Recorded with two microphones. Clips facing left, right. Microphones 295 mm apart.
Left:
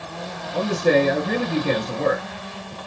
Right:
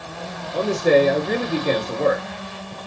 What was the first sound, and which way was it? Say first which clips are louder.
A man speaking: right 2 dB; 40° left (ahead or behind).